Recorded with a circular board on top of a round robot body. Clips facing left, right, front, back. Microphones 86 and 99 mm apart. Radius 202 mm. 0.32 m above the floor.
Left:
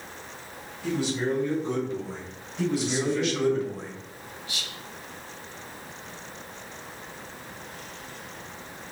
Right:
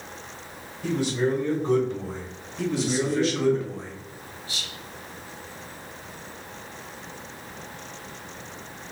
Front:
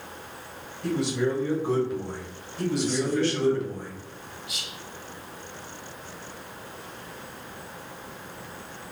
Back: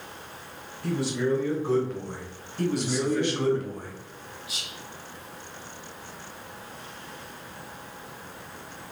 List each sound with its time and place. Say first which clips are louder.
0.8 s a man speaking: right 3 dB, front 1 dB; 65° right, 2 m; by 3.6 s 130° right, 1.4 m
2.6 s a man speaking: right 1 dB, even; 175° left, 1.9 m
4.5 s whispering: even, front 1 dB; 135° right, 1.3 m